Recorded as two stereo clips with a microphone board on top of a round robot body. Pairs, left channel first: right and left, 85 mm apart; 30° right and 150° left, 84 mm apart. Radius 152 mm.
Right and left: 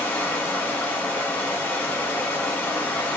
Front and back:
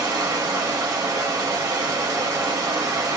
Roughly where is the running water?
Behind.